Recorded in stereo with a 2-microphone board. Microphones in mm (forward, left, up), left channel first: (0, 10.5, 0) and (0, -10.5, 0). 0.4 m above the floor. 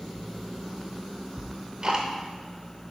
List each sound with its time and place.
1.4 s ticking: 35° right (ahead or behind), 0.8 m